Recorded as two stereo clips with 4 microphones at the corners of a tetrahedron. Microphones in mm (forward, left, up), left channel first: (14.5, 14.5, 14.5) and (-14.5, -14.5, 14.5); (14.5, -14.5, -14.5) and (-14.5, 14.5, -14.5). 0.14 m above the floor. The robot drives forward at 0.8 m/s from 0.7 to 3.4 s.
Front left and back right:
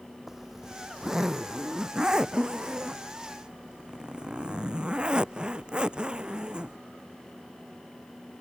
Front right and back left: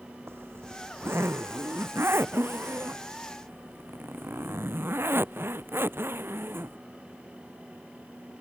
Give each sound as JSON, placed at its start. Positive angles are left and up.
{"t": 0.3, "sound": "a zipper", "azimuth_deg": 145}